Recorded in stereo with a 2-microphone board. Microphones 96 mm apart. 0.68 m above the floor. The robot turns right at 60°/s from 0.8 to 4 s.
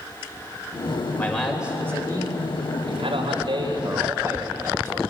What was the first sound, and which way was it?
A man speaking, 160° left.